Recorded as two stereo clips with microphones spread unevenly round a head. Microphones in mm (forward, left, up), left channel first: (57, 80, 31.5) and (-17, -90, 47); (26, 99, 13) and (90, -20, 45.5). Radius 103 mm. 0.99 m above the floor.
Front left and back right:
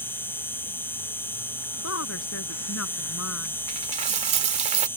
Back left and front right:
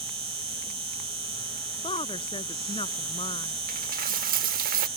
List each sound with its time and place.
0.0 s an insect: 15° right
1.8 s a woman speaking: 65° left
3.7 s a dropped coin: 60° right